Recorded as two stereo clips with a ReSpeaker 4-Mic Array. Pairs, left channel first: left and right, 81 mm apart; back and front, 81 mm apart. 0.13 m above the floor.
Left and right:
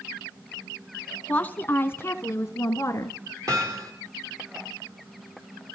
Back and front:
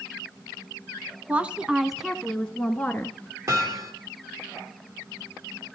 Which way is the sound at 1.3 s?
45° left.